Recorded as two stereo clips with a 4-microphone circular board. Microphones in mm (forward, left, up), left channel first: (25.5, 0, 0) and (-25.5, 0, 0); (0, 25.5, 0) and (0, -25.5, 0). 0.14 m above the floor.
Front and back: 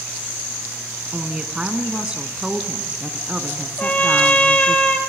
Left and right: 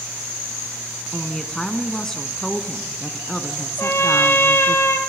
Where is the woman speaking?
150° left, 1.5 m.